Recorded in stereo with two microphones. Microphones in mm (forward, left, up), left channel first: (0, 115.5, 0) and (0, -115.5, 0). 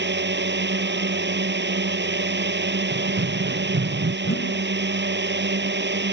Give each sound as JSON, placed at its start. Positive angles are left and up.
{"t": 0.0, "sound": "a drone", "side_deg": -50}
{"t": 2.9, "sound": "running footsteps", "side_deg": -50}
{"t": 4.2, "sound": "a whoosh", "side_deg": 60}